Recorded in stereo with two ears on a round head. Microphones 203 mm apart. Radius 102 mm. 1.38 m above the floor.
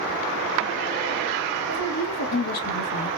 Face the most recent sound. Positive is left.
turn(degrees=40)  # may be behind; listen again after turning